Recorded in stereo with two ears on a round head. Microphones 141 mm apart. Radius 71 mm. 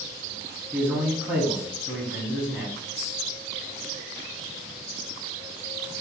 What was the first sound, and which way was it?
A man speaking, 10° right (ahead or behind).